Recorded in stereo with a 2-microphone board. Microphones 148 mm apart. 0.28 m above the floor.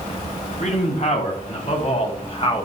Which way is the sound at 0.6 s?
60° left (ahead or behind).